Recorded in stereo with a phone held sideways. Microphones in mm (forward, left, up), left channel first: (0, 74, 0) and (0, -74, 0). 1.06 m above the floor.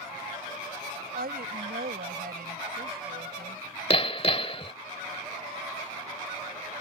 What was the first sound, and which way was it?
A woman speaking, 80° right.